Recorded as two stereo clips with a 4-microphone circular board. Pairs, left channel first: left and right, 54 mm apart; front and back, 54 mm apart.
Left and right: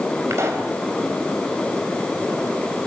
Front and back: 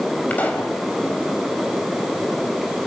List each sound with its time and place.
0.3 s a pop: 60° right, 4.5 m